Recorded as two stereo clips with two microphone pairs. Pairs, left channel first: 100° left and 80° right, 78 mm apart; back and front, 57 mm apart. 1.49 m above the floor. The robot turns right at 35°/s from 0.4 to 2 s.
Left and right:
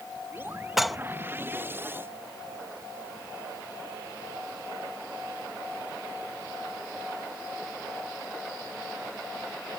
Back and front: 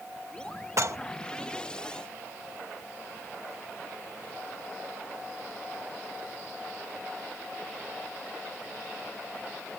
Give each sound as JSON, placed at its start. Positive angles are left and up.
{"t": 0.8, "sound": "dishes clattering", "azimuth_deg": 5}